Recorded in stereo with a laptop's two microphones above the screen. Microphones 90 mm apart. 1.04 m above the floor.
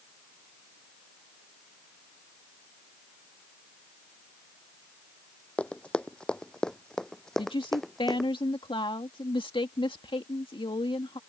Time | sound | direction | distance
5.6 | running footsteps | 15° left (ahead or behind) | ?
7.4 | a woman speaking | 70° left (ahead or behind) | ?